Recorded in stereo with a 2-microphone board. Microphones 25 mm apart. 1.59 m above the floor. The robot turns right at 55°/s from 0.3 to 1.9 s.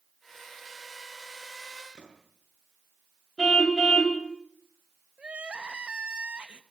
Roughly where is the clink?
No clink in this recording.